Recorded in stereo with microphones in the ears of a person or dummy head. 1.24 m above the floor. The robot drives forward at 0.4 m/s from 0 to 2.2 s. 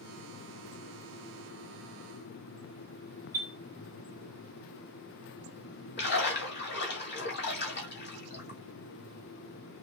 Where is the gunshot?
I don't hear a gunshot.